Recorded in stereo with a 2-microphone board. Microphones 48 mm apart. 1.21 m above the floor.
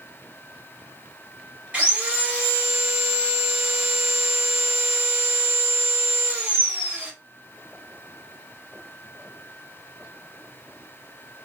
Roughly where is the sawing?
Right.